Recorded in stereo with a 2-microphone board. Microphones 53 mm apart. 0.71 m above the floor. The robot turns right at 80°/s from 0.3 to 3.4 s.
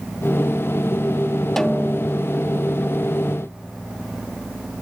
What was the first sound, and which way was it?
A snare drum, 5° left.